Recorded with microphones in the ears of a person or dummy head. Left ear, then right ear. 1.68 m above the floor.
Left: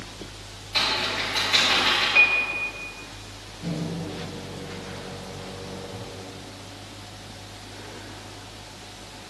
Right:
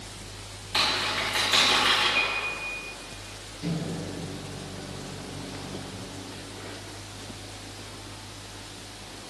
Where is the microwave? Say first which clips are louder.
Left 1 dB; 50° right (ahead or behind), 2.5 m.